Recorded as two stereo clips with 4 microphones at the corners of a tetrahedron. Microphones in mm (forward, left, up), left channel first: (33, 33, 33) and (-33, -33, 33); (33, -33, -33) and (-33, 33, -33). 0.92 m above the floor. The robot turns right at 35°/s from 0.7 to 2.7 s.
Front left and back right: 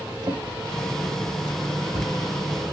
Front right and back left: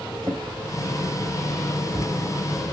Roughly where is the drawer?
Behind.